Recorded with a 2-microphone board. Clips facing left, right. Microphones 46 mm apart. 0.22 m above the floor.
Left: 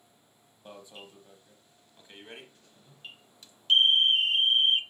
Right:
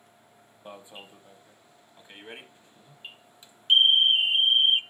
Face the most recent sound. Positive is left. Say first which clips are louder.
# right 2 dB
turn(degrees=-20)  # may be behind; listen again after turning